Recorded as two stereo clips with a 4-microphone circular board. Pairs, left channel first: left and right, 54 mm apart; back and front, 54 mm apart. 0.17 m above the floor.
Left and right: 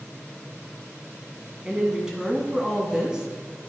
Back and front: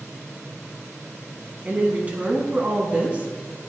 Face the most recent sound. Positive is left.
turn(degrees=-30)